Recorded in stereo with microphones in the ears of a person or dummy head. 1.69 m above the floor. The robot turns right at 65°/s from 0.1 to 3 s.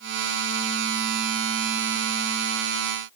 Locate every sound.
Only background noise.